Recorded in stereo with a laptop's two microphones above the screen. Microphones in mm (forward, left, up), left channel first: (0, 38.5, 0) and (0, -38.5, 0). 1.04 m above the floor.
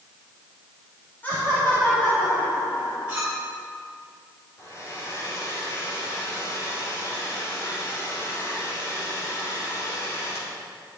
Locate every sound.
1.2 s laughter: 25° left (ahead or behind), 2.5 m
3.1 s a clink: 15° right (ahead or behind), 4.5 m
4.6 s a hair dryer: 40° left (ahead or behind), 3 m